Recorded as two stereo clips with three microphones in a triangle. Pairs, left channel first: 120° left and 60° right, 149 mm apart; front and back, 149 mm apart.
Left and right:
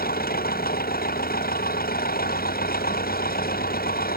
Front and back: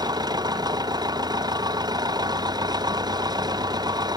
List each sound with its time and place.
0.0 s an engine running: 115° left